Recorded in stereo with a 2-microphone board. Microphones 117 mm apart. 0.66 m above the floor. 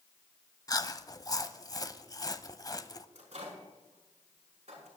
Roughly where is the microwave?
Right.